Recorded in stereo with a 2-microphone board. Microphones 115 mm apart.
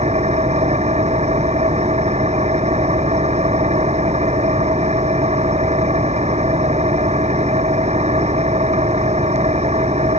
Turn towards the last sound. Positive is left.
turn(degrees=-75)  # may be behind; listen again after turning